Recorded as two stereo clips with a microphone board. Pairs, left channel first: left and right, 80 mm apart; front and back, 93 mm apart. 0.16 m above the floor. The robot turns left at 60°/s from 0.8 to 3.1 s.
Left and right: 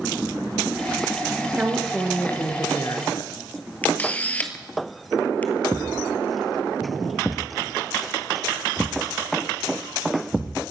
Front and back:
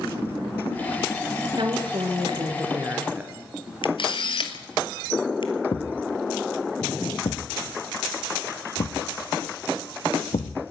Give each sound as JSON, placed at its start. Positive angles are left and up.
{"t": 1.5, "sound": "a woman speaking", "azimuth_deg": -155, "distance_m": 2.0}
{"t": 3.8, "sound": "a camera shutter", "azimuth_deg": 20, "distance_m": 1.4}
{"t": 5.7, "sound": "a thud", "azimuth_deg": 0, "distance_m": 1.2}